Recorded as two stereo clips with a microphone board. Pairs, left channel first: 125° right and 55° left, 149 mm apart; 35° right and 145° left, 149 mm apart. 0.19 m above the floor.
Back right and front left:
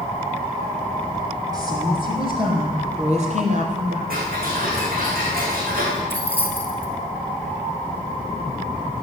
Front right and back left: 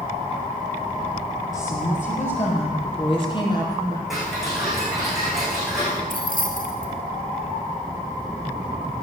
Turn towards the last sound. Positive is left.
turn(degrees=-50)